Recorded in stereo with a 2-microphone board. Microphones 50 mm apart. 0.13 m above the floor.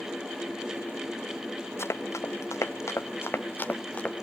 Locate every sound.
1.8 s running footsteps: 65° left (ahead or behind), 1.7 m; by 4.2 s 20° left (ahead or behind), 2 m